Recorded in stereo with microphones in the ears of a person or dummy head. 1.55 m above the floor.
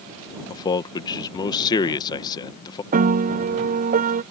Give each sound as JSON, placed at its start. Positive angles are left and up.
{"t": 0.5, "sound": "a man speaking", "side_deg": 25}
{"t": 2.9, "sound": "a piano", "side_deg": -45}